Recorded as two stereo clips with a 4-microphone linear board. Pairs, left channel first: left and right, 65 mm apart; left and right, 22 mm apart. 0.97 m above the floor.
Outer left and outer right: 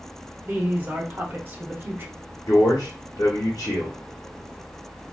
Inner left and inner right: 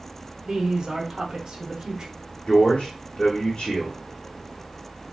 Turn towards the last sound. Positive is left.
turn(degrees=65)  # may be behind; listen again after turning